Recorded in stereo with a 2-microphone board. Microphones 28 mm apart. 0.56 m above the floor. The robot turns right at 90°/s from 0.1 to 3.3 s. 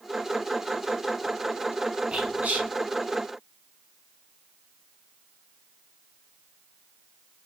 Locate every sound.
2.1 s whispering: 45° right (ahead or behind), 1.4 m; by 2.7 s 60° right (ahead or behind), 1.4 m